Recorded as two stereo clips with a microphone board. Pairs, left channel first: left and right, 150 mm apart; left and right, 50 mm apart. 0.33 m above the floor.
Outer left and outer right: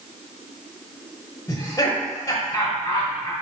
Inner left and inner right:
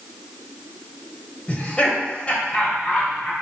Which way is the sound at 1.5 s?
25° left (ahead or behind).